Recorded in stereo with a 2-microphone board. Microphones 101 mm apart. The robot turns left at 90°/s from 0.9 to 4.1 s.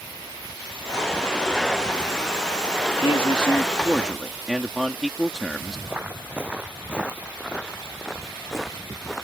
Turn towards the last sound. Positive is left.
turn(degrees=5)  # may be behind; listen again after turning